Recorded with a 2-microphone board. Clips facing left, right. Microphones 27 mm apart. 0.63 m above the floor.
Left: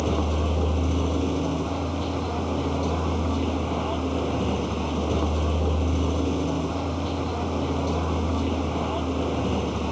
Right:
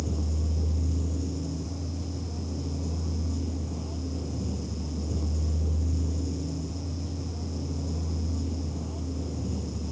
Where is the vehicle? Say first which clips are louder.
Left 9 dB; 60° left (ahead or behind).